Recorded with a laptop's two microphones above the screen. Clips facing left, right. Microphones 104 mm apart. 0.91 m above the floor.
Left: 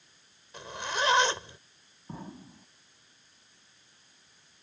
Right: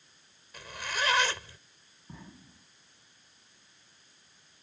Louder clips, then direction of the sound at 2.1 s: Left 7 dB; 40° left (ahead or behind).